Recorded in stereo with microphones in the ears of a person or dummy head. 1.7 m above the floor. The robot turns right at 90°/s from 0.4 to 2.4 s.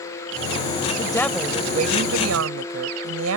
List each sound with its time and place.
1.0 s a woman speaking: 145° left; by 3.4 s 85° right